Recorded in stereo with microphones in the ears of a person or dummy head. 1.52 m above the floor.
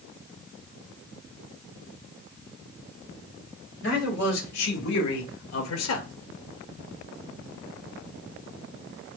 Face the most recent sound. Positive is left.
turn(degrees=70)  # may be behind; listen again after turning